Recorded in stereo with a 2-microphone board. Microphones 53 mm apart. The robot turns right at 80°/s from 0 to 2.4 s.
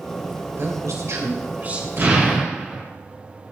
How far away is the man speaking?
About 2.5 m.